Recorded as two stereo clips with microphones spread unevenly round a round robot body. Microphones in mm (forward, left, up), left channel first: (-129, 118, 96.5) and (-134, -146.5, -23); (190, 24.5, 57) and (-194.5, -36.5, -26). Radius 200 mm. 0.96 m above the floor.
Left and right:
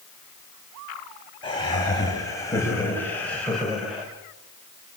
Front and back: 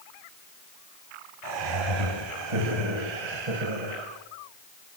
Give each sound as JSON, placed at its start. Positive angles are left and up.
{"t": 1.4, "sound": "laughter", "azimuth_deg": 165, "distance_m": 7.5}